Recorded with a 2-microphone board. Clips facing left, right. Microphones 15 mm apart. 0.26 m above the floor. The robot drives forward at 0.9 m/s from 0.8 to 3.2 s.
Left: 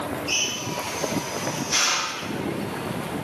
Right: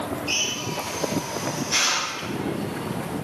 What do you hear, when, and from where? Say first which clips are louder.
0.3 s a drill: even; centre (ahead or behind), 3.5 m